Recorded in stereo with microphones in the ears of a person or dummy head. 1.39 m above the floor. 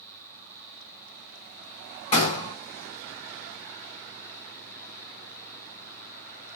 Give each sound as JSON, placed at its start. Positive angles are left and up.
{"t": 2.1, "sound": "a gunshot", "side_deg": 30, "distance_m": 1.4}